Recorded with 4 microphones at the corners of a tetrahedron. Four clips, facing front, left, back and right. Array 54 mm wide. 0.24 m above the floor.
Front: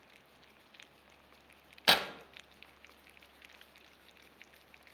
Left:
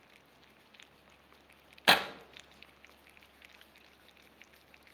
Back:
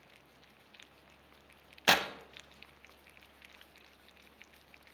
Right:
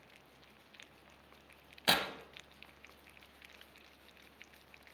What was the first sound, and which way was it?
Tearing paper, 110° left.